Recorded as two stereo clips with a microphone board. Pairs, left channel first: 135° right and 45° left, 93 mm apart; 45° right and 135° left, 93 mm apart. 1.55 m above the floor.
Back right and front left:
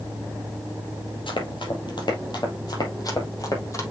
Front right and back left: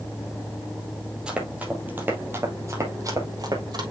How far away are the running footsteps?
About 3 m.